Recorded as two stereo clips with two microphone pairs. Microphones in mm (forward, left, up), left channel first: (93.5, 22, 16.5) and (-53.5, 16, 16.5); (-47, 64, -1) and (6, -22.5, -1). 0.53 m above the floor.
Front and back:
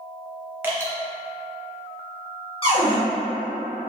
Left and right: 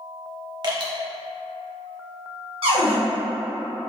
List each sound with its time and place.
0.6 s dripping: 100° right, 0.6 m
2.6 s a cupboard door: 45° right, 0.9 m